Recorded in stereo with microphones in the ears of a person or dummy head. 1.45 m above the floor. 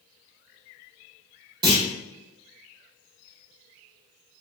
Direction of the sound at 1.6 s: 25° right (ahead or behind).